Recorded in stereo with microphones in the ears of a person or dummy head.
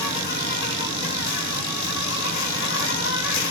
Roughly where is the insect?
Left.